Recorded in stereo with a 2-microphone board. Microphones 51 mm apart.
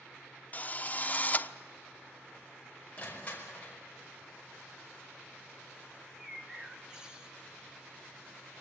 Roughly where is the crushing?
Left.